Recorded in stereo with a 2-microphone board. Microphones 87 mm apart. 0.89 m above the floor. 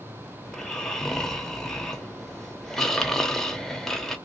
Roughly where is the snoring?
Centre.